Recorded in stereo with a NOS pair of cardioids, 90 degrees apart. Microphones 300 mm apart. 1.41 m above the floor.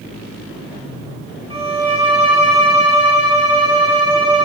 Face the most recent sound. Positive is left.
turn(degrees=-20)